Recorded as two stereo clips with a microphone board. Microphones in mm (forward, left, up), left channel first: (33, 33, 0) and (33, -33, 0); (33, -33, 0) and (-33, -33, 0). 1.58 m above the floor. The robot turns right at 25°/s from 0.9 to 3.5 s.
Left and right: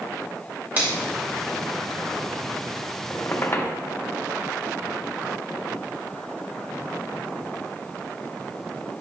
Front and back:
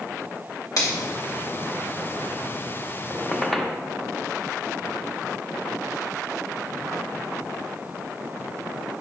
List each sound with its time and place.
0.8 s a finger snap: 25° right, 2 m
3.1 s a squeak: 70° left, 0.6 m; by 3.8 s 80° left, 0.6 m